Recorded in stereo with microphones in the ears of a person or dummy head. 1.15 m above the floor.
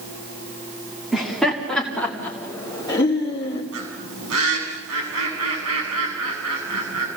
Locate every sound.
1.1 s laughter: 5° right (ahead or behind), 2.5 m; by 3.6 s 35° left (ahead or behind), 2.5 m
3.7 s a bird: 80° right, 6.5 m